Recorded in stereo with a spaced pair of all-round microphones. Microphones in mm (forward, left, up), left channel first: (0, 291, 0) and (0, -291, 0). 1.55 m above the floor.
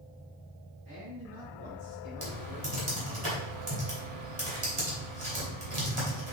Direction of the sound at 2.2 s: 55° right (ahead or behind).